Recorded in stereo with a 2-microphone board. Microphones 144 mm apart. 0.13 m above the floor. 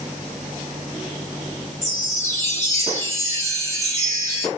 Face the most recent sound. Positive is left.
turn(degrees=25)  # may be behind; listen again after turning